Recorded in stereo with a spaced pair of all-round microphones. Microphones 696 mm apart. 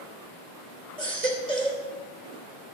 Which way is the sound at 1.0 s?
70° right (ahead or behind).